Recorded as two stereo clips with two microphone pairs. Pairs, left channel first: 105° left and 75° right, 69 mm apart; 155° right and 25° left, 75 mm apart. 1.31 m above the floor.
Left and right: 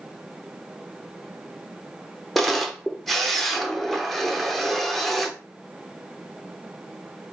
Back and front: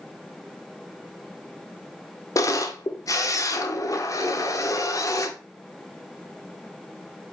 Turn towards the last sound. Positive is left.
turn(degrees=-175)